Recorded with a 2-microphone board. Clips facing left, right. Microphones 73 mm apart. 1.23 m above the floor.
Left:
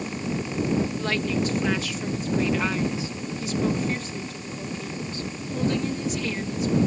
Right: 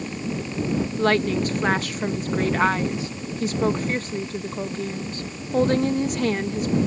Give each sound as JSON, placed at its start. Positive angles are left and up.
{"t": 1.0, "sound": "a woman speaking", "side_deg": -50}